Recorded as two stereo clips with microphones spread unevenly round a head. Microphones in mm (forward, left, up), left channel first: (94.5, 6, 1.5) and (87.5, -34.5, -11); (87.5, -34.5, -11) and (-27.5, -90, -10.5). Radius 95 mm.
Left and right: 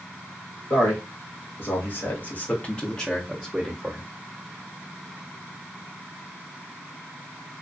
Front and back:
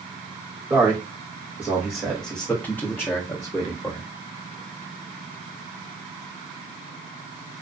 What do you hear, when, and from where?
0.7 s a man speaking: 125° left, 1.1 m; by 4.1 s 40° right, 0.9 m